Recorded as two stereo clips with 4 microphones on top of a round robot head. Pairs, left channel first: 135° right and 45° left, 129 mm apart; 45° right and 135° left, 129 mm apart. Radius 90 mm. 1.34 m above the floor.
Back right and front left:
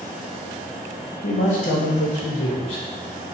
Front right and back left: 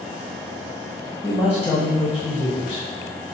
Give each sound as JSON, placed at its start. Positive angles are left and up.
{"t": 1.2, "sound": "a man speaking", "azimuth_deg": -115, "distance_m": 0.8}